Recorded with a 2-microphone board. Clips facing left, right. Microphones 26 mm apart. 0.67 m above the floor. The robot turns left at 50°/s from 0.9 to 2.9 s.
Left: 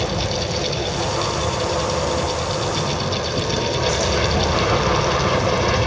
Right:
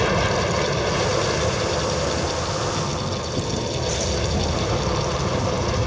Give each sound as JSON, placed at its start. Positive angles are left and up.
{"t": 0.0, "sound": "an aircraft", "azimuth_deg": -120}